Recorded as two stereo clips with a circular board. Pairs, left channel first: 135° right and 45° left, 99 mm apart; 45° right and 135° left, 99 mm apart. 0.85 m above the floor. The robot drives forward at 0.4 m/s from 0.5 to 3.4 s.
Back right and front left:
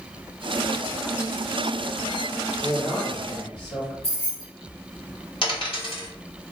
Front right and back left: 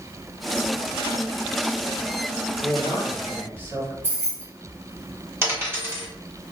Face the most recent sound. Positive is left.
turn(degrees=-160)